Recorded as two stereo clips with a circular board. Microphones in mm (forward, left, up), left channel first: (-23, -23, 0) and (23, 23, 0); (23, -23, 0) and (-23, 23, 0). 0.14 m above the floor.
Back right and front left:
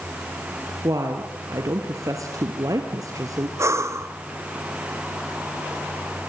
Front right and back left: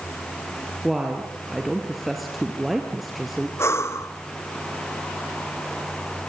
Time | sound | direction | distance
0.8 | a woman speaking | 50° left | 2 m
3.6 | breathing | 5° left | 1.4 m